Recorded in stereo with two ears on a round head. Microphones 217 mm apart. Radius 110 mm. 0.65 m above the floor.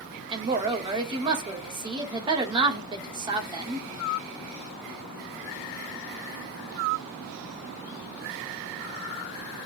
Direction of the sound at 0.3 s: 20° right (ahead or behind).